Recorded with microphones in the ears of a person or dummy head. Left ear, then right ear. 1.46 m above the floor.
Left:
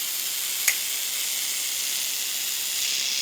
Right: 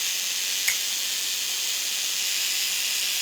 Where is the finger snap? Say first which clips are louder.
Left 2 dB; 85° left, 2.5 m.